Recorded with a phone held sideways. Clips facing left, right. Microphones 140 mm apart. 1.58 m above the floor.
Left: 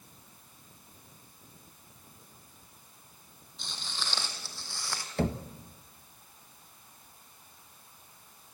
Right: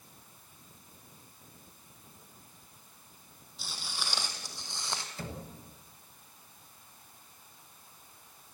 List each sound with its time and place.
3.6 s footsteps: 5° right (ahead or behind), 3 m; by 5.1 s 25° right (ahead or behind), 3.5 m
5.2 s knocking: 65° left (ahead or behind), 1.3 m